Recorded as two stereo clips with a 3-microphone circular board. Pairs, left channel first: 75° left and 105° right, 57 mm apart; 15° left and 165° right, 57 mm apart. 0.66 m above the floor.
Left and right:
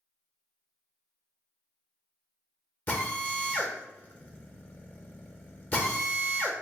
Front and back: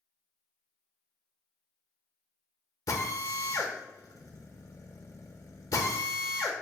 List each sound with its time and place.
2.9 s a drill: 20° left, 0.7 m